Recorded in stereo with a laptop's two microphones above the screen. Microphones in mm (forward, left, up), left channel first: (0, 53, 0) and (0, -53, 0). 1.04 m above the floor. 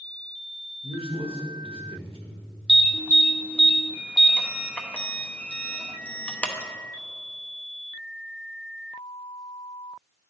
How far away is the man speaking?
About 1.2 m.